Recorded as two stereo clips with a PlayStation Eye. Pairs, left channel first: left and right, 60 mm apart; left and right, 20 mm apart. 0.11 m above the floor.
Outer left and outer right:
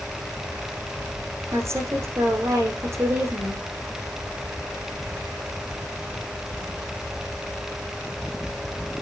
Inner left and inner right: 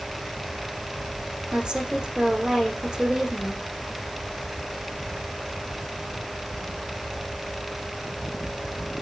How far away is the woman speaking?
About 6 m.